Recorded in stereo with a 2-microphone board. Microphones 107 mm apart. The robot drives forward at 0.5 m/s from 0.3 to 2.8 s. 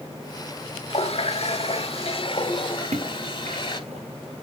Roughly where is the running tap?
Left.